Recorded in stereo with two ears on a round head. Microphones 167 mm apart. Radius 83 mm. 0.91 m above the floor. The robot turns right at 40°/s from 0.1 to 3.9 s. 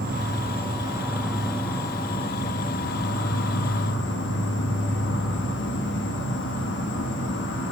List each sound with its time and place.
0.0 s an insect: 55° right, 1.2 m; by 7.7 s 100° left, 1.2 m